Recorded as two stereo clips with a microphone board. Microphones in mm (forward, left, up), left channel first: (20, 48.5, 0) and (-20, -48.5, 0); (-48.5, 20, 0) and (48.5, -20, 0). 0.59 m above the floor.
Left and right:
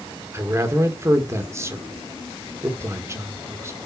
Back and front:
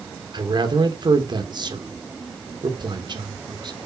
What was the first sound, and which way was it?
A man speaking, 55° right.